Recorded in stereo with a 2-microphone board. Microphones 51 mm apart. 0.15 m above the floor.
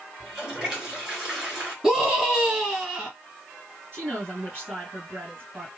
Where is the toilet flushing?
20° right (ahead or behind), 2.5 m.